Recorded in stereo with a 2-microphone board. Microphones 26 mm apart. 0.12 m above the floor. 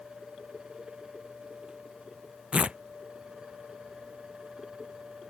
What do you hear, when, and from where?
2.5 s tearing paper: 45° right (ahead or behind)